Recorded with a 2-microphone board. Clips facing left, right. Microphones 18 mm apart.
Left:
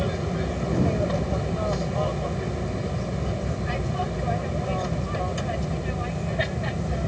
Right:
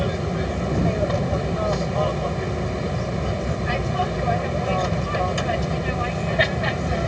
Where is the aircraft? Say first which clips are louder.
Right 3 dB; 10° right (ahead or behind); by 7.1 s 25° right (ahead or behind).